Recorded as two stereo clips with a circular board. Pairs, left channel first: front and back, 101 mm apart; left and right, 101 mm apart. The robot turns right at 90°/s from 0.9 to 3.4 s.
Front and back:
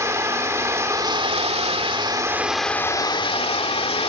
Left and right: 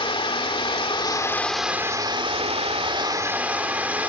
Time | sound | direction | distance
0.0 | running water | 120° left | 2.0 m